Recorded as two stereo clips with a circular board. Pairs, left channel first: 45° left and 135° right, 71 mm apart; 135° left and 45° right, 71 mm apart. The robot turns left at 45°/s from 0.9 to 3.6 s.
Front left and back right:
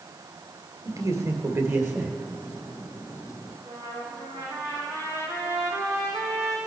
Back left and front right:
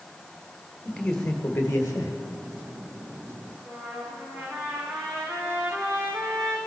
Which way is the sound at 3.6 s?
150° right.